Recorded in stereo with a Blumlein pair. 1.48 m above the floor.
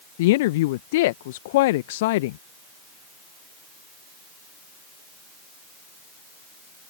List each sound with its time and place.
0.2 s a woman speaking: 50° left